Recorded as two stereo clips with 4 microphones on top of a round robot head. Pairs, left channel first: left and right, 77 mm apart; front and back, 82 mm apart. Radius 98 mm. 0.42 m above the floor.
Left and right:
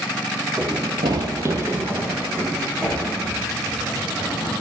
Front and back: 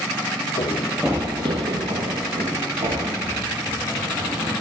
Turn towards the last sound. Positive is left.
turn(degrees=-165)